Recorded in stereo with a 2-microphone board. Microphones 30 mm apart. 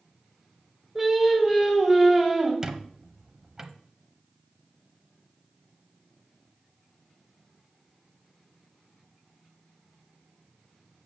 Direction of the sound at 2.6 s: 25° right (ahead or behind).